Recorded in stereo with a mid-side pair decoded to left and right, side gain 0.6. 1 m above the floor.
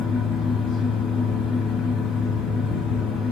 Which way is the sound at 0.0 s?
60° left.